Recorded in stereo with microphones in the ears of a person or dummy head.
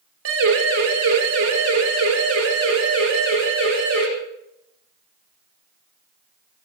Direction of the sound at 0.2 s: 70° right (ahead or behind).